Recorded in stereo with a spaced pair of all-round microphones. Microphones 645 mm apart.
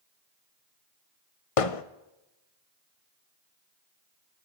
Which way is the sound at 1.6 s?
60° left (ahead or behind).